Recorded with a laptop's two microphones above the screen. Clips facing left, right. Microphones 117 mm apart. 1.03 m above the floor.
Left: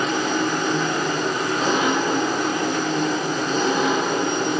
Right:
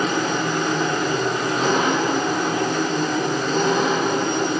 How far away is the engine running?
About 7 m.